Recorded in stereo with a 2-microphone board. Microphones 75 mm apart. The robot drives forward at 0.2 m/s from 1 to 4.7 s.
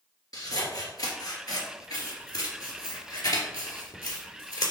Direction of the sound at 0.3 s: 55° left (ahead or behind).